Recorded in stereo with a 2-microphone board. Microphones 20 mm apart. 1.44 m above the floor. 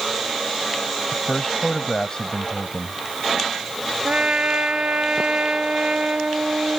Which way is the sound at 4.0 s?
75° right (ahead or behind).